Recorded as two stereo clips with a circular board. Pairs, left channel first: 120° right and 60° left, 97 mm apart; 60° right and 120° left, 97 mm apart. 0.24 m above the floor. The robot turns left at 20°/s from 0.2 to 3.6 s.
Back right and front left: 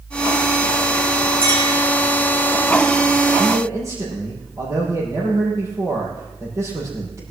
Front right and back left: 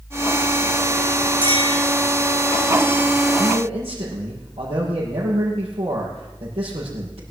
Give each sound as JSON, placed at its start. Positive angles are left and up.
{"t": 1.4, "sound": "a clink", "azimuth_deg": 85, "distance_m": 8.0}
{"t": 3.4, "sound": "a man speaking", "azimuth_deg": 120, "distance_m": 7.0}